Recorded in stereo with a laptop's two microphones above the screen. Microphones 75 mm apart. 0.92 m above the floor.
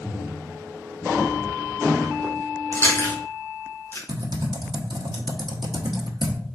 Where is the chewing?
35° left (ahead or behind), 1.5 m.